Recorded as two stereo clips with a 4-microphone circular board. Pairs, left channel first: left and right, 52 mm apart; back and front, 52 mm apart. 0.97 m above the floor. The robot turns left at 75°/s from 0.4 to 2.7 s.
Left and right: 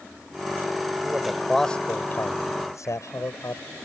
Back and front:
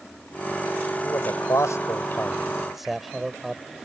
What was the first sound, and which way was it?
A man speaking, 145° right.